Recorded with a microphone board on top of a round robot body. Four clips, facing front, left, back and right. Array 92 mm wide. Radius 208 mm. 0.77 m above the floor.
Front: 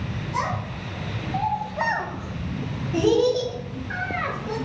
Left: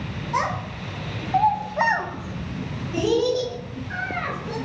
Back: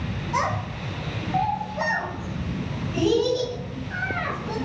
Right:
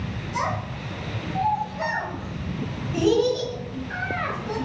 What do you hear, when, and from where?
0.3 s a child speaking: 125° left, 1.0 m; by 4.6 s 5° right, 1.5 m